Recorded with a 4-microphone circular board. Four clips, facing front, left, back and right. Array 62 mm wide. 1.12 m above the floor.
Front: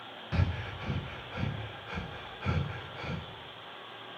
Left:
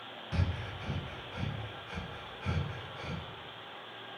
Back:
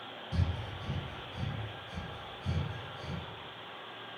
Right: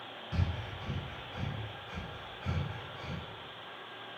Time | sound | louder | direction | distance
0.3 | breathing | left 1 dB, front 4 dB | 10° left | 0.6 m